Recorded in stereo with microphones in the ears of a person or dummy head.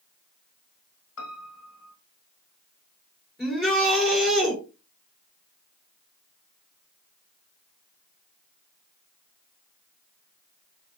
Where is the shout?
5° right (ahead or behind), 4 m.